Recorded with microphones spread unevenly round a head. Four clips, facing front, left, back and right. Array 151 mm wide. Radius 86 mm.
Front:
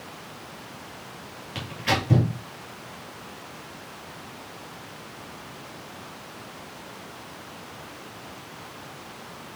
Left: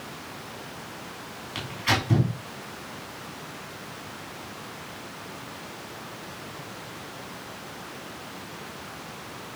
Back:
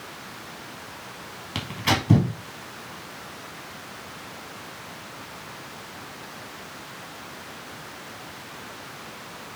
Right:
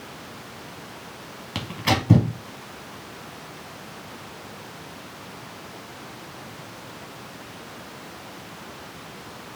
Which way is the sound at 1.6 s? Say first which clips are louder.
Right 3 dB, back 1 dB; 120° right.